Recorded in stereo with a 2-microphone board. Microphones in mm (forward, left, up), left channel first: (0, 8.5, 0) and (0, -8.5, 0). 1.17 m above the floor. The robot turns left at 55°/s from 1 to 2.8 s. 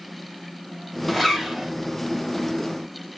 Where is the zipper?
5° right, 2.5 m; by 1.7 s 40° right, 2.5 m.